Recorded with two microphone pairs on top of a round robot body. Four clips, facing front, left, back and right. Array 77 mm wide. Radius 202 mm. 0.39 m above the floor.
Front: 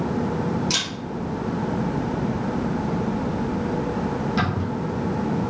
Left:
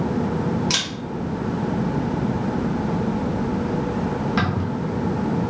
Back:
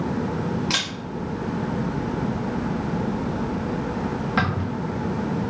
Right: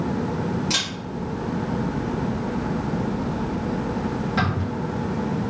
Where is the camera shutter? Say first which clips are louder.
Left 2 dB, even; 165° left, 1.3 m.